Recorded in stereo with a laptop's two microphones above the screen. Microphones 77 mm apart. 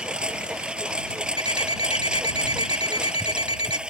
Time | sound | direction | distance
0.0 | a lawn mower | 10° right (ahead or behind) | ?
1.4 | an alarm clock | 75° right (ahead or behind) | ?